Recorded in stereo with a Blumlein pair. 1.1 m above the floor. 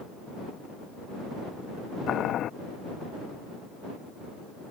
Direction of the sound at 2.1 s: 30° left.